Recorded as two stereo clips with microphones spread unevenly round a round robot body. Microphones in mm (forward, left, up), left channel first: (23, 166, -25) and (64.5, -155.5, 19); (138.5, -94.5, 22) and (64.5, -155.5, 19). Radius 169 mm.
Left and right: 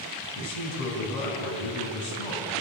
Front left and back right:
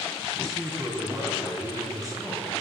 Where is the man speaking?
135° left, 4 m.